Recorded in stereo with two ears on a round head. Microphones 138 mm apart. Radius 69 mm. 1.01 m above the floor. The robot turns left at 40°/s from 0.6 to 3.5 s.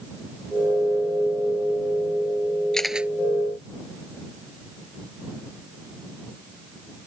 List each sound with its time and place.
2.7 s a camera shutter: 5° left (ahead or behind); by 3.1 s 10° right (ahead or behind)